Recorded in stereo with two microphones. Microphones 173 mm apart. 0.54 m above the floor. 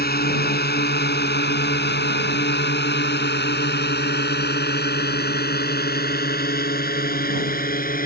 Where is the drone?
65° left (ahead or behind); by 8.1 s 55° left (ahead or behind).